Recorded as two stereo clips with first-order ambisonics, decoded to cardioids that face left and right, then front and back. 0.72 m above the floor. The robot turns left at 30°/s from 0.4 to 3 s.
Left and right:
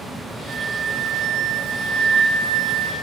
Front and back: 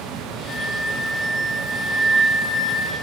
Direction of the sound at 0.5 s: 45° right.